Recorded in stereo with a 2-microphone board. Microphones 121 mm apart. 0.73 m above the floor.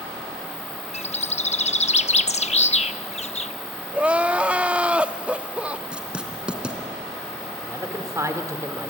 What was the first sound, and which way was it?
A bird, 65° left (ahead or behind).